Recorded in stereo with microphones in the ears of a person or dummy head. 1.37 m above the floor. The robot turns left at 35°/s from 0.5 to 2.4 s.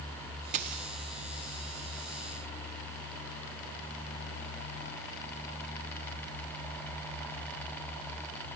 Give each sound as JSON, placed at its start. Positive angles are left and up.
{"t": 0.5, "sound": "a dropped coin", "side_deg": -35, "distance_m": 1.3}